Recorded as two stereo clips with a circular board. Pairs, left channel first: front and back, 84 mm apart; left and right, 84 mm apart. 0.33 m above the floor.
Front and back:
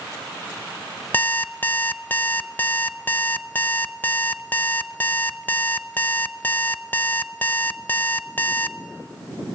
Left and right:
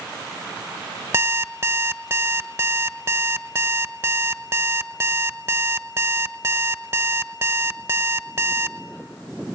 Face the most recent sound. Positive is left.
turn(degrees=-55)